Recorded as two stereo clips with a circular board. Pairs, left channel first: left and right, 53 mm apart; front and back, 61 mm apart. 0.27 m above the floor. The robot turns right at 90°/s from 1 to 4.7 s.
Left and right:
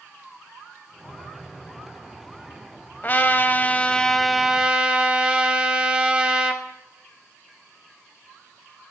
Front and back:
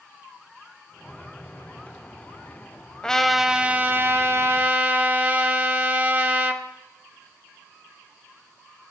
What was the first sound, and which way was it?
A trumpet, 65° left.